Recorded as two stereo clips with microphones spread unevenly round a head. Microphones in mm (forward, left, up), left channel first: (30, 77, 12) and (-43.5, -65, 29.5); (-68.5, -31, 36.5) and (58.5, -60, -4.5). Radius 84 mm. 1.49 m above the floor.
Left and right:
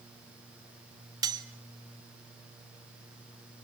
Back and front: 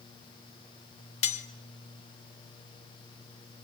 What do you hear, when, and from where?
1.2 s cutlery clinking: straight behind, 1.6 m